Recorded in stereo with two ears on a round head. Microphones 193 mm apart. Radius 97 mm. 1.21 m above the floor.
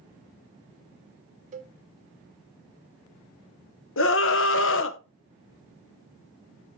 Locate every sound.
1.5 s a cowbell: 35° right (ahead or behind), 0.8 m
4.0 s a scream: 65° left (ahead or behind), 0.9 m